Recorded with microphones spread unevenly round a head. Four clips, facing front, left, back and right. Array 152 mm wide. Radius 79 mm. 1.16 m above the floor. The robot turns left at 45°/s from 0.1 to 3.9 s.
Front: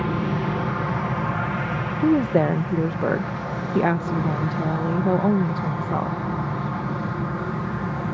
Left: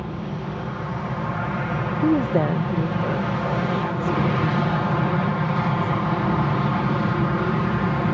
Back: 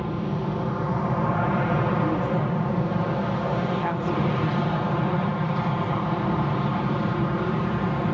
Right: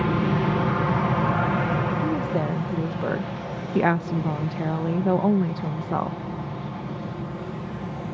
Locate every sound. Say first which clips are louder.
0.0 s an aircraft: right 8 dB, front 3 dB; 85° right; by 8.2 s 105° left
2.0 s a woman speaking: left 5 dB, front 6 dB; 40° left; by 6.2 s 45° right